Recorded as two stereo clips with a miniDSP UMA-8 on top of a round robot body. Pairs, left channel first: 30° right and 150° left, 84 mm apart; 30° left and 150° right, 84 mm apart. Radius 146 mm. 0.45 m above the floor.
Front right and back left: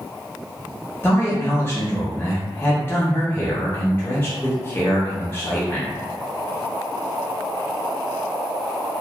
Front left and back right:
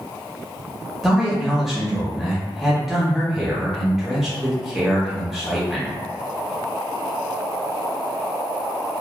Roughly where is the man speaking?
Ahead right.